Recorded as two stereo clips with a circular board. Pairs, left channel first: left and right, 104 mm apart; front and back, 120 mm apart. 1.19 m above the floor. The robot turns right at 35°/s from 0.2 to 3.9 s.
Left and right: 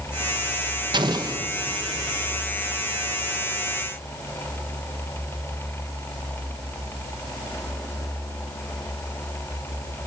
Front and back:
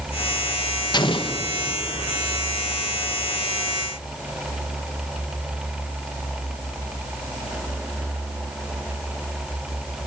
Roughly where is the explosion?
Ahead right.